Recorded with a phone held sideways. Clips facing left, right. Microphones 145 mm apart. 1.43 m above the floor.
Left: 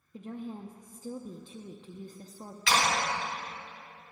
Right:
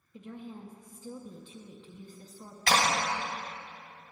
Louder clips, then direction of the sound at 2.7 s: Right 1 dB; 45° right (ahead or behind).